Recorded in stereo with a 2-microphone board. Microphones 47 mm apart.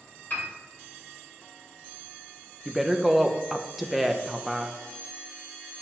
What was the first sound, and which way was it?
A piano, 45° left (ahead or behind).